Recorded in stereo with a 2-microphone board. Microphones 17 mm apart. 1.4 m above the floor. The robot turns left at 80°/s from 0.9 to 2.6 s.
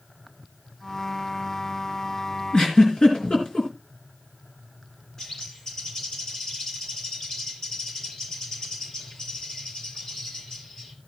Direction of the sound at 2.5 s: 50° left (ahead or behind).